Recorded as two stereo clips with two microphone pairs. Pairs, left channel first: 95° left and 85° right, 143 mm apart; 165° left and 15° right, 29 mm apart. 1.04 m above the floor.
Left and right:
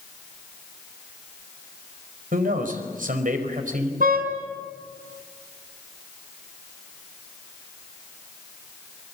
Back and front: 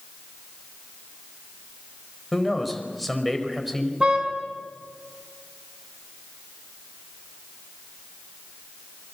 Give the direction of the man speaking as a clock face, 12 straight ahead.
3 o'clock.